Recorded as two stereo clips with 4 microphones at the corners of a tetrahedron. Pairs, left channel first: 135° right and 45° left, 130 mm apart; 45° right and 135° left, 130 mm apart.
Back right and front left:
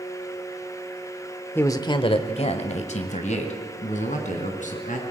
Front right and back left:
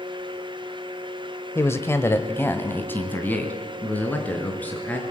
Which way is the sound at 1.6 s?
80° right.